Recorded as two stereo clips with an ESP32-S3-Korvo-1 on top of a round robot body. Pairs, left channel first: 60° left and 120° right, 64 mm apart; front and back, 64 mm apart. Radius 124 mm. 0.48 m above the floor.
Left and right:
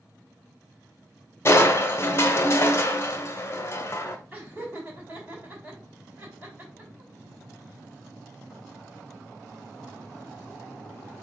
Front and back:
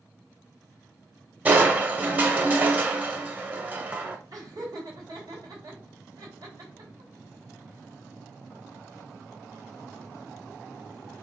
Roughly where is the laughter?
Behind.